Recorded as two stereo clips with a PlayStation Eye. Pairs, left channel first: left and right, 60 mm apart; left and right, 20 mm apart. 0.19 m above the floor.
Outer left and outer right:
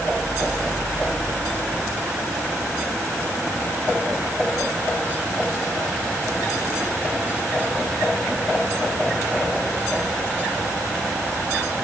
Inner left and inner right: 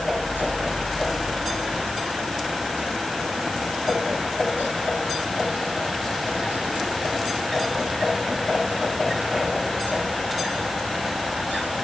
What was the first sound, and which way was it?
Only background noise.